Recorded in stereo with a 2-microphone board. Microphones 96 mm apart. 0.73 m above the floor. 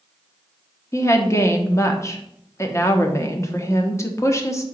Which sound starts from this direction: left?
A woman speaking, at 0.9 s.